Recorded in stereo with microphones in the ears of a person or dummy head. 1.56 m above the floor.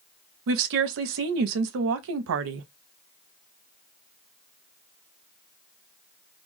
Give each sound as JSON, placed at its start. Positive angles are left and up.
{"t": 0.5, "sound": "a woman speaking", "side_deg": -75, "distance_m": 0.5}